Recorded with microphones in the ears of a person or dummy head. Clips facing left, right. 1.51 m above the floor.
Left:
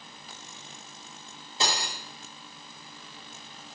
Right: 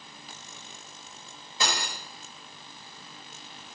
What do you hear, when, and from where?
1.6 s cutlery clinking: 25° left (ahead or behind), 3.5 m